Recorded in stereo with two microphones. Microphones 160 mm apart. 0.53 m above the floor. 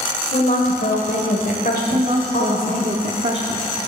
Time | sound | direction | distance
0.3 | a woman speaking | 60° left (ahead or behind) | 1.7 m
1.9 | a woman speaking | 45° right (ahead or behind) | 0.9 m